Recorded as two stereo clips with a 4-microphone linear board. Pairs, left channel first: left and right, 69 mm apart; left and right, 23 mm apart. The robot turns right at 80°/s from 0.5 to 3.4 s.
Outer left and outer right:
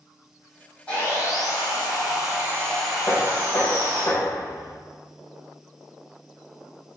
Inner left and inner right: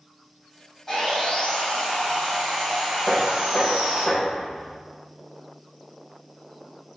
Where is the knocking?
45° left (ahead or behind), 3 m; by 4.8 s 65° left (ahead or behind), 3 m.